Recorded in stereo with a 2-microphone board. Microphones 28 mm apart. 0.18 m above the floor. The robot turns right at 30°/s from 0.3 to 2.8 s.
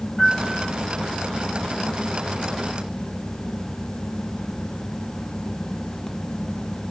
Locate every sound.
0.2 s a piano: 5° right (ahead or behind), 6.5 m; by 0.7 s 10° left (ahead or behind), 6.5 m